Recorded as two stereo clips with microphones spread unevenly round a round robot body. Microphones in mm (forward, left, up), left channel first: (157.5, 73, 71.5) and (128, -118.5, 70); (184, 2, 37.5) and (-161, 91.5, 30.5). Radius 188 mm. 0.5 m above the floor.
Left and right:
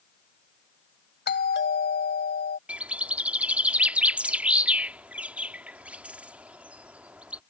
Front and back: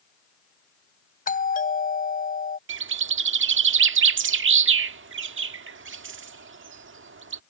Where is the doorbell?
50° left.